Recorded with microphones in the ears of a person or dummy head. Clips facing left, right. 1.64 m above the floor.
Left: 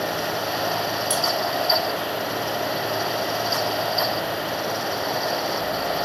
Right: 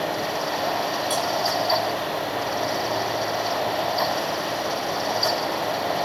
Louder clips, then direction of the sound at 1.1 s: Even; 25° left (ahead or behind).